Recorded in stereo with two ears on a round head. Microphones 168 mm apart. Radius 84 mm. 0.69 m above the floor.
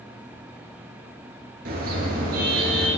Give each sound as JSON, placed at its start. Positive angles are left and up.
{"t": 1.6, "sound": "a car horn", "side_deg": -50, "distance_m": 7.0}